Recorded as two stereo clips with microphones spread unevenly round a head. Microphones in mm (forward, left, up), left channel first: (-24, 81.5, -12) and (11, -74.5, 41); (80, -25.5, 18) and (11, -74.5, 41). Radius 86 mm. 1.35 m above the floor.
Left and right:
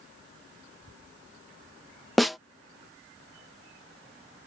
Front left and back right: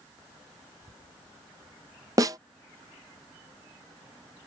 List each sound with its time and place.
2.2 s a snare drum: 150° right